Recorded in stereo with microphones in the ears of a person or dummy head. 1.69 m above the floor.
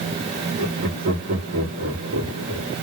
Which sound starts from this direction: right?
Laughter, at 0.6 s.